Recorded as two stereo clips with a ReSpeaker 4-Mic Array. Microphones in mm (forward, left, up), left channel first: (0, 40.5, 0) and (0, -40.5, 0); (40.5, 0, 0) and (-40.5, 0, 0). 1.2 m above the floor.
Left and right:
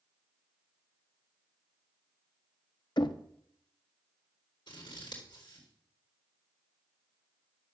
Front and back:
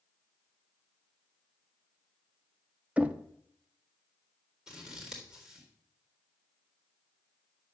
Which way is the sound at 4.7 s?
100° left.